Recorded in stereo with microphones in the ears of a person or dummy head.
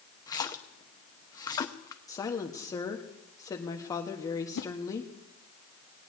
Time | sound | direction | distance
0.3 | a splash | 25° left (ahead or behind) | 0.7 m
2.1 | a woman speaking | 25° left (ahead or behind) | 1.3 m
4.5 | a whoosh | 65° left (ahead or behind) | 0.8 m